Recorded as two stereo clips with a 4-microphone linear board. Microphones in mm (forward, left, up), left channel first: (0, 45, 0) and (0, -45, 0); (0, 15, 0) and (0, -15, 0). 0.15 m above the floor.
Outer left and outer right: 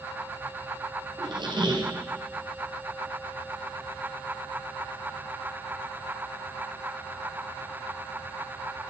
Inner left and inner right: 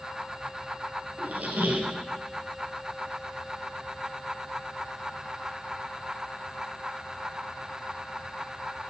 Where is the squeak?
60° right (ahead or behind), 1.9 m.